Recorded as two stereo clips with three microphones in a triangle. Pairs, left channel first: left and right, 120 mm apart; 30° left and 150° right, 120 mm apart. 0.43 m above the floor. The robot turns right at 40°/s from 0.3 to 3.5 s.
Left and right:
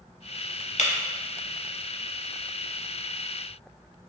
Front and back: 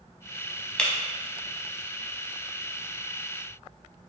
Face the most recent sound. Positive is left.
turn(degrees=-140)